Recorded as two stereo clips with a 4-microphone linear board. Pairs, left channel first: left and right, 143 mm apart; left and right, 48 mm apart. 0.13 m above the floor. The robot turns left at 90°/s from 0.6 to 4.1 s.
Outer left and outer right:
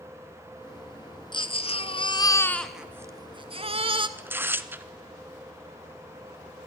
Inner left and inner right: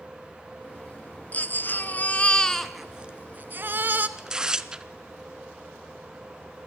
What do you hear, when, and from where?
1.3 s a baby crying: 125° left, 1.0 m; by 4.1 s 125° right, 1.0 m
4.2 s tearing paper: 15° right (ahead or behind), 0.8 m